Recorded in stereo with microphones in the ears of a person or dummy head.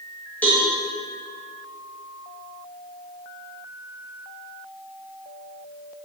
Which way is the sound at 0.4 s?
10° left (ahead or behind).